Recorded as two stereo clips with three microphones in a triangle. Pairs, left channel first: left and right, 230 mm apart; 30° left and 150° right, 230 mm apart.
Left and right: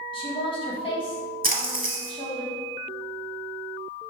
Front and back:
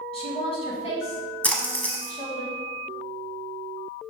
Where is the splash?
50° right, 0.7 m.